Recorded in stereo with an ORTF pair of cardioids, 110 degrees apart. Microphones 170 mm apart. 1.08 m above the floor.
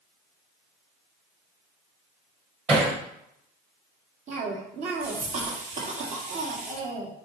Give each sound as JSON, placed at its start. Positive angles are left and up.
{"t": 2.7, "sound": "hammering", "azimuth_deg": -35, "distance_m": 4.0}
{"t": 4.3, "sound": "a cough", "azimuth_deg": -45, "distance_m": 2.0}